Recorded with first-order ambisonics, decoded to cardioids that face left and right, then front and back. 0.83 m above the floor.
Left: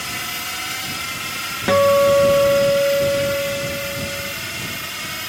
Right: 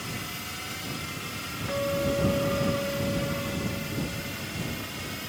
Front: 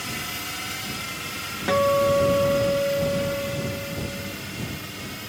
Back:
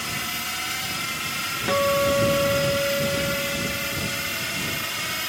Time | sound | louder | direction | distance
0.0 | a drone | left 10 dB, back 3 dB | 105° left | ?
1.7 | a guitar | left 15 dB, front 2 dB | 85° left | ?